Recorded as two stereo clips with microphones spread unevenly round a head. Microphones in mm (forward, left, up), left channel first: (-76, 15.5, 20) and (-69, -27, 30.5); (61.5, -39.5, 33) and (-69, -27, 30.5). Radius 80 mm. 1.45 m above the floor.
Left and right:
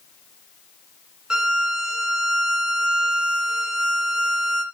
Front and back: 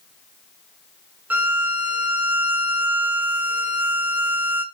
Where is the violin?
115° right, 1.3 m.